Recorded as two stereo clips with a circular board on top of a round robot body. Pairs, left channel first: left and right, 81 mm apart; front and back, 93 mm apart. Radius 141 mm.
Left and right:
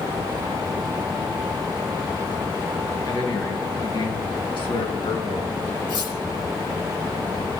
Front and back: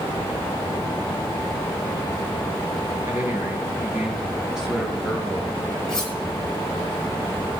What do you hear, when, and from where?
3.0 s a man speaking: 115° left, 3.5 m; by 5.8 s 90° left, 6 m
5.9 s cutlery clinking: 85° left, 5.5 m